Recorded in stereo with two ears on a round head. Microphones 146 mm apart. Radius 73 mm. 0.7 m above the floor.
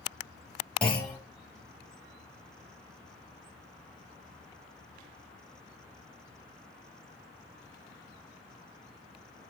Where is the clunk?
5° left (ahead or behind), 1.4 m.